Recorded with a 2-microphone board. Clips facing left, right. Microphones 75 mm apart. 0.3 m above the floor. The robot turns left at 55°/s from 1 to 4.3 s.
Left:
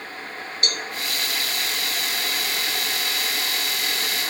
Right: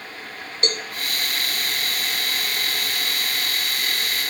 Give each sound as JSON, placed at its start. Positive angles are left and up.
{"t": 0.6, "sound": "a cowbell", "side_deg": -35, "distance_m": 1.0}